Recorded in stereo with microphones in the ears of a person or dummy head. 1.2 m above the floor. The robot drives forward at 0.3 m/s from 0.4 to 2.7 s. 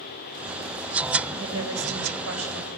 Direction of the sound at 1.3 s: 75° right (ahead or behind).